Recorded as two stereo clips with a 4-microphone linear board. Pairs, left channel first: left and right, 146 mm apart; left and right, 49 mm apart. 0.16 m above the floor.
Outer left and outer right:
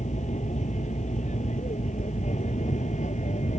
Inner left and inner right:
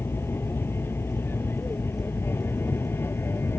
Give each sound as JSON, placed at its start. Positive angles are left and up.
{"t": 0.0, "sound": "an aircraft", "side_deg": 55}